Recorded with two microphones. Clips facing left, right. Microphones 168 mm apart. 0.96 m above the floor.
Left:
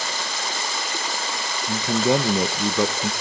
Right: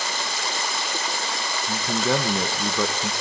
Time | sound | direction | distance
1.7 | a man speaking | 15° left (ahead or behind) | 0.5 m